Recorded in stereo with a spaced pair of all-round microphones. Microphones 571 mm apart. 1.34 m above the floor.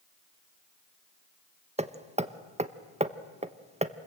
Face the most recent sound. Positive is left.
turn(degrees=-10)  # may be behind; listen again after turning